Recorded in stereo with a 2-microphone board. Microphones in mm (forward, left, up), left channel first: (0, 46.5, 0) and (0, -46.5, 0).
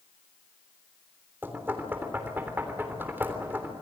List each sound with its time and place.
1.4 s knocking: 20° right (ahead or behind), 3.5 m